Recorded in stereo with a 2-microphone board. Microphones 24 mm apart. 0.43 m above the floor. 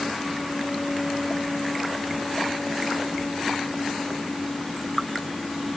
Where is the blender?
I don't hear a blender.